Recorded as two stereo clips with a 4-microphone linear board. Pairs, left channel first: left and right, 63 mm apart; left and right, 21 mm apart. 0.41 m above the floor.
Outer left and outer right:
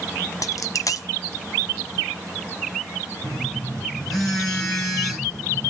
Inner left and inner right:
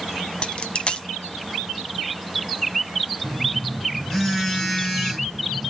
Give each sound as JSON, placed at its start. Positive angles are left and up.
{"t": 0.4, "sound": "a dropped coin", "side_deg": 60, "distance_m": 0.9}
{"t": 3.2, "sound": "a phone buzzing", "side_deg": 5, "distance_m": 6.5}